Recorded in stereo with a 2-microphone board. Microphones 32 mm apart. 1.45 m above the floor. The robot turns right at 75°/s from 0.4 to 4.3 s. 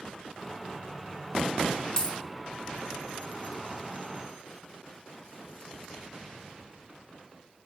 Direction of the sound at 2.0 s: 25° left (ahead or behind).